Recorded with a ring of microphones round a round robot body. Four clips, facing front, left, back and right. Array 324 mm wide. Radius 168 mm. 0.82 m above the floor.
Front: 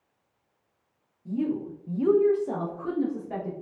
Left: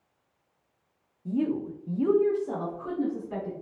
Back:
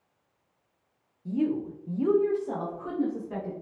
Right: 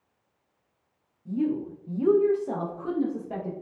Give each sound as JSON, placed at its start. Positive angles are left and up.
{"t": 1.2, "sound": "a woman speaking", "azimuth_deg": 105, "distance_m": 0.6}